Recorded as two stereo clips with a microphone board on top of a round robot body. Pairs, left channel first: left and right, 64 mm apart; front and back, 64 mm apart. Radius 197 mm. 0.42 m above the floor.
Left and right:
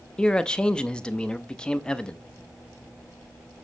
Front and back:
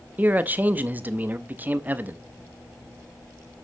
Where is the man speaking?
155° left, 0.8 m.